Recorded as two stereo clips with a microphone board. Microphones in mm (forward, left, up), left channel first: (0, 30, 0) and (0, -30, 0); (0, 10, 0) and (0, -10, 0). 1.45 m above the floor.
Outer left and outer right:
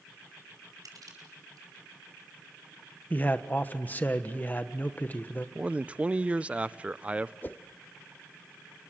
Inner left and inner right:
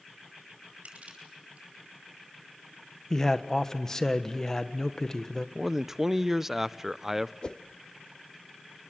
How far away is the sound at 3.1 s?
About 1.3 m.